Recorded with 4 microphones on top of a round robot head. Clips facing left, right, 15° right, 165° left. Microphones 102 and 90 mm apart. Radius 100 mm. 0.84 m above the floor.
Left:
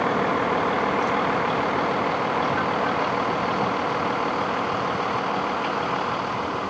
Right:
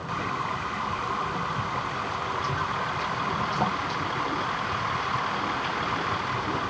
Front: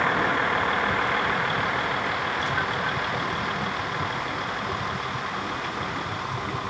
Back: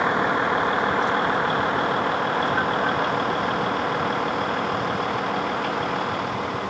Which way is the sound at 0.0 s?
95° left.